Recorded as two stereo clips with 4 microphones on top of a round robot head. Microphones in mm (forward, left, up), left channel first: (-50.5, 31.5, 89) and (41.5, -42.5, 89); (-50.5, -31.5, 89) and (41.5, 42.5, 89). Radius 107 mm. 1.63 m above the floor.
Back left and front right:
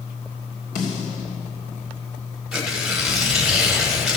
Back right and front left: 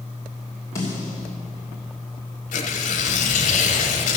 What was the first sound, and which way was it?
A snare drum, 150° left.